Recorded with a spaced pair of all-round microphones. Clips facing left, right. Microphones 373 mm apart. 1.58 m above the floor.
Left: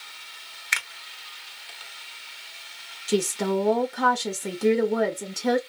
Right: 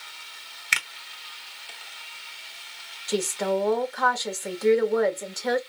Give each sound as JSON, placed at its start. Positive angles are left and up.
{"t": 0.7, "sound": "a finger snap", "side_deg": -45, "distance_m": 0.6}
{"t": 3.1, "sound": "a woman speaking", "side_deg": 45, "distance_m": 0.8}